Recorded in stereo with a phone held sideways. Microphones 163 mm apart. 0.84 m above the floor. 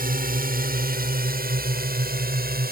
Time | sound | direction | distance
0.0 | a drone | 65° right (ahead or behind) | ?